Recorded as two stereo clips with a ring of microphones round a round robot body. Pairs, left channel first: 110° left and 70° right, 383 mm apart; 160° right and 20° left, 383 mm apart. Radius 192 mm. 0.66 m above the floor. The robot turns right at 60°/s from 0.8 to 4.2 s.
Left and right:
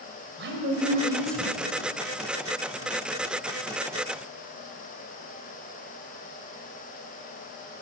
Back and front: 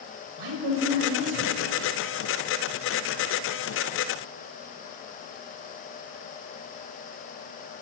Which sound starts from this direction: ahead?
A woman speaking, at 0.4 s.